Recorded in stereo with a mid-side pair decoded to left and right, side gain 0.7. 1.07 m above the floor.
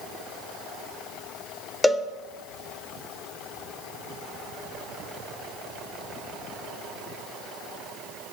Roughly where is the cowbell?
Ahead.